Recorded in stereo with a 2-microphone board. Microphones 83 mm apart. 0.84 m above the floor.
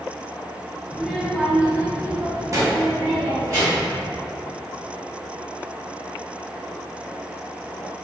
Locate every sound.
0.9 s a child speaking: 5° left (ahead or behind), 0.8 m; by 4.0 s 35° right (ahead or behind), 1.4 m